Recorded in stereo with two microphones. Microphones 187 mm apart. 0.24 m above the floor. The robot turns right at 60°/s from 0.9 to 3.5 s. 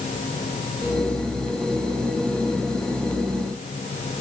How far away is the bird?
No bird in this recording.